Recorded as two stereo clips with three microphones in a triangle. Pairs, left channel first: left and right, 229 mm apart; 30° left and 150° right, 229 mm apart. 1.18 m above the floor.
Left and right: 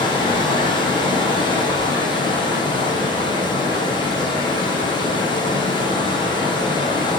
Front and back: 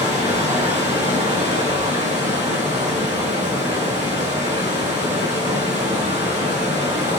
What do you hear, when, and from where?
0.0 s running water: 160° left, 0.7 m